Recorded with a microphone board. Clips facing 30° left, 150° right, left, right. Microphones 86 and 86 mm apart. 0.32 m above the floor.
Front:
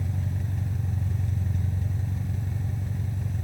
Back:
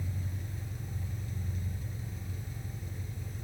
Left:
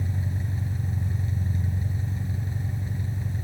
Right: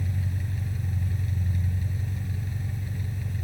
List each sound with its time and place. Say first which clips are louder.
0.0 s an engine running: front 8 dB, left 2 dB; 30° left, 0.8 m